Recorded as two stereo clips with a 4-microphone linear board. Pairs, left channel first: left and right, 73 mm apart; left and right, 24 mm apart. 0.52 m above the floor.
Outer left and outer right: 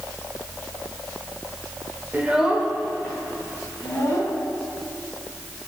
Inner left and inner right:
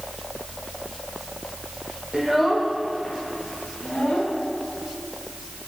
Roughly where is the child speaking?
Right.